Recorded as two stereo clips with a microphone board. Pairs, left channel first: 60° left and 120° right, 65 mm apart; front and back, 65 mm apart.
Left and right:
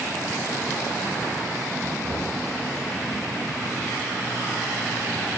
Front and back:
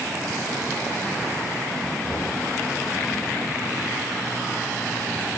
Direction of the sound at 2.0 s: 80° right.